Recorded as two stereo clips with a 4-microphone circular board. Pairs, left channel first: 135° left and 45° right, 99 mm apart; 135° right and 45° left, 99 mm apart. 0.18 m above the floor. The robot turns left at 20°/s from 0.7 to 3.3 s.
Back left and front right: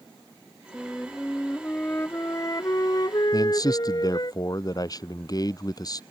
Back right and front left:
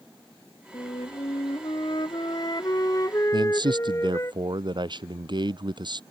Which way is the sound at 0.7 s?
140° right.